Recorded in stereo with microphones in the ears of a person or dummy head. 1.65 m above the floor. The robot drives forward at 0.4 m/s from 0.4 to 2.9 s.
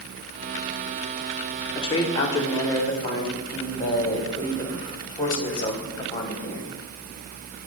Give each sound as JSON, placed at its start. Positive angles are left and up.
{"t": 1.8, "sound": "a man speaking", "side_deg": 35, "distance_m": 0.8}